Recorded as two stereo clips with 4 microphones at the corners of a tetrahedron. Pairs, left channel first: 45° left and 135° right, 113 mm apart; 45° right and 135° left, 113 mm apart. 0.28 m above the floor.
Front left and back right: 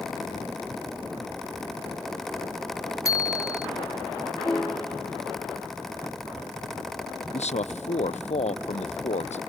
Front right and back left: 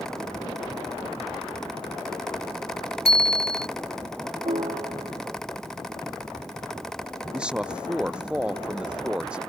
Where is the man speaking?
55° left.